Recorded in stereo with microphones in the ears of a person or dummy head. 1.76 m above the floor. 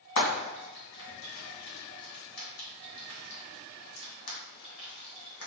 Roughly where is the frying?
Left.